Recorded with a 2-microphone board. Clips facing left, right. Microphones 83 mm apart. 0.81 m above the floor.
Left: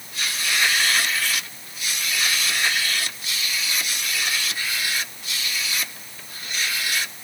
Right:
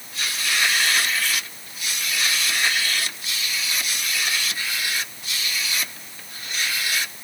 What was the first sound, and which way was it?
Only background noise.